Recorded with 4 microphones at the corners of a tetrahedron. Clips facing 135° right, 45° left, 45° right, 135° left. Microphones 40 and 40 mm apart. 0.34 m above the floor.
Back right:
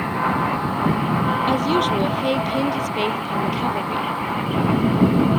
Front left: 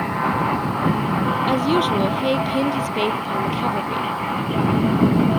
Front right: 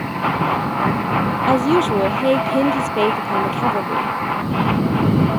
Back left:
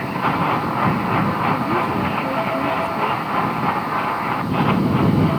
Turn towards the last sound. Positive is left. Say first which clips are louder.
# front left 2 dB, front right 4 dB
turn(degrees=-40)